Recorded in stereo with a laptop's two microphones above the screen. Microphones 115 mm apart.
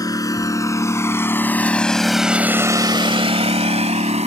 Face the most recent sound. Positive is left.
turn(degrees=-75)  # may be behind; listen again after turning